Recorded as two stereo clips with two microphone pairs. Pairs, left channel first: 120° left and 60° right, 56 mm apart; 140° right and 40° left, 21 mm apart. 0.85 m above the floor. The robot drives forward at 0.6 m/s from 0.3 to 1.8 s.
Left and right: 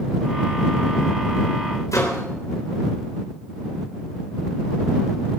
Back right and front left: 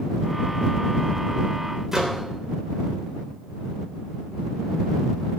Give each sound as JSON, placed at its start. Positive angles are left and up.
{"t": 1.9, "sound": "a microwave", "azimuth_deg": 105, "distance_m": 3.5}